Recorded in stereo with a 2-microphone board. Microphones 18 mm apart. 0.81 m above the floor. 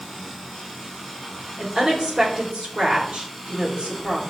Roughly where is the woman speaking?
Right.